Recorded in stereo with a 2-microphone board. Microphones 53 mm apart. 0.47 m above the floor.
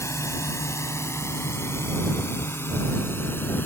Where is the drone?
65° left (ahead or behind); by 3.7 s 40° left (ahead or behind).